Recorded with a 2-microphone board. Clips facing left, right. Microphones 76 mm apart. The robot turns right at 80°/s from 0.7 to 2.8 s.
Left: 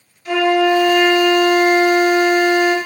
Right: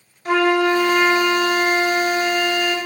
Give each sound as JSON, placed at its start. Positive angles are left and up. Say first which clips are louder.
{"t": 0.2, "sound": "a flute", "louder": "left 2 dB", "azimuth_deg": -65, "distance_m": 0.6}